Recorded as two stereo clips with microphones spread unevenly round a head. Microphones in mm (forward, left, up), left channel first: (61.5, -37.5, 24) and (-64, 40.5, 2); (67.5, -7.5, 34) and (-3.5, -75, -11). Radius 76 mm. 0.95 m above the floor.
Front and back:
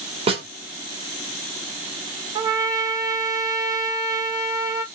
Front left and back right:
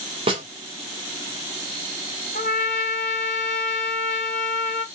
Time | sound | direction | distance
0.3 | a snare drum | 160° right | 2.5 m
2.4 | a trumpet | 85° left | 1.1 m